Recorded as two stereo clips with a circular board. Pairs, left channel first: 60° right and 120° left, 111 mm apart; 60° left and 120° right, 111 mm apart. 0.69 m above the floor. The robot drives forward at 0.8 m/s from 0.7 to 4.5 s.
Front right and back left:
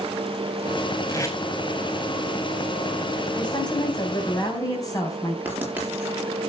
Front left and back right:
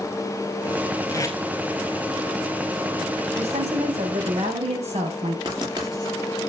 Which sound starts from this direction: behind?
Writing, at 5.5 s.